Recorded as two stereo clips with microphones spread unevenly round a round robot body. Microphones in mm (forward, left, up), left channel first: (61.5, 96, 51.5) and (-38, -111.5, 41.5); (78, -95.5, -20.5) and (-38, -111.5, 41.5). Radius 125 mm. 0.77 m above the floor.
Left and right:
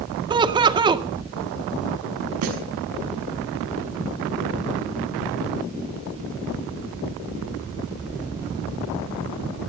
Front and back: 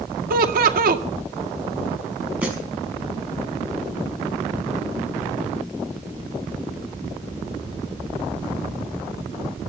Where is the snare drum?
95° right, 5.5 m.